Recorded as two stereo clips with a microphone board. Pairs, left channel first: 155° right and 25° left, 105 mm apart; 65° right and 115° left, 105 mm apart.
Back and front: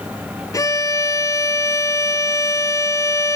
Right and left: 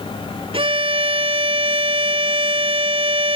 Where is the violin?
145° left, 0.7 m.